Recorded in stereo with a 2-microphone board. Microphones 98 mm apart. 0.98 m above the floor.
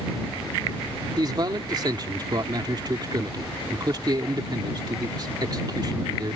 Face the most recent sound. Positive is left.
turn(degrees=-45)  # may be behind; listen again after turning